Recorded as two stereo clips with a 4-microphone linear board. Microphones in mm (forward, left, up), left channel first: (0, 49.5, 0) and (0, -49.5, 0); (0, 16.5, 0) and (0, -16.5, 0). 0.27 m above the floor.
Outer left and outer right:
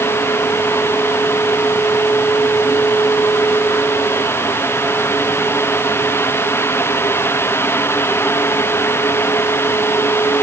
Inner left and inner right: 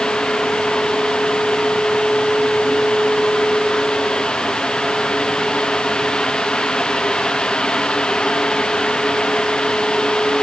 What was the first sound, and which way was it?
Only background noise.